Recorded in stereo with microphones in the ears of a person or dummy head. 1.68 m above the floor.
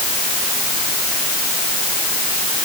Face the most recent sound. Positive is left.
No sound to turn to.